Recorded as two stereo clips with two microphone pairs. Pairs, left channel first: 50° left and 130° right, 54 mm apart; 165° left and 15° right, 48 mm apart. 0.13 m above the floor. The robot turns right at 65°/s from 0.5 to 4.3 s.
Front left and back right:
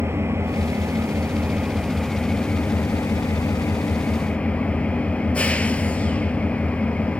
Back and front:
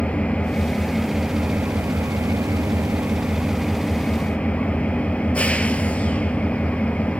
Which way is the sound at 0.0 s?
140° right.